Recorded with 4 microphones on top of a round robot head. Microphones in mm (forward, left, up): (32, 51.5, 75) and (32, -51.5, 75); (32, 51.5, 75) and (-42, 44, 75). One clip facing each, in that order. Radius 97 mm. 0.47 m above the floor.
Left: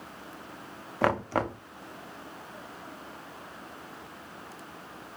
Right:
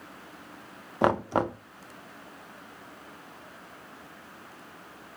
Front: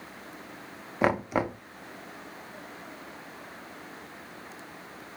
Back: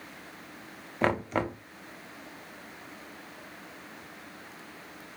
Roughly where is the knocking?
Ahead right.